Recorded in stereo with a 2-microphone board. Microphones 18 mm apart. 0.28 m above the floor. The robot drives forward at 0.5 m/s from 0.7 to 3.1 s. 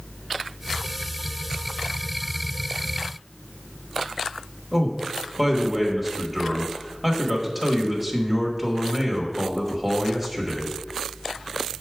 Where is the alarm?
I don't hear an alarm.